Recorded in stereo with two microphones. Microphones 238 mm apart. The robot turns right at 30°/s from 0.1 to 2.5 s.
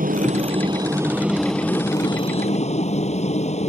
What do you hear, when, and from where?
0.0 s a helicopter: 40° right; by 3.7 s 30° left